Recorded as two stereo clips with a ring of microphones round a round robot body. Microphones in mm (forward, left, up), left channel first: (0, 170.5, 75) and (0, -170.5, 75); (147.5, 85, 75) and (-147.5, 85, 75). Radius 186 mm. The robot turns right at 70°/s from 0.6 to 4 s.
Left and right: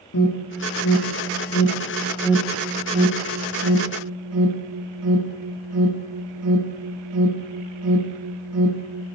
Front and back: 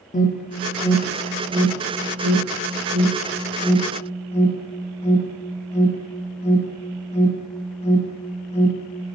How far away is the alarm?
About 1.8 m.